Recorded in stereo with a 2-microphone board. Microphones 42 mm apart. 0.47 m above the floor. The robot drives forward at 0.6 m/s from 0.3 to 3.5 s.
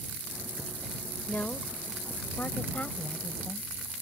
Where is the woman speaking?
55° left (ahead or behind); by 3.7 s 30° left (ahead or behind).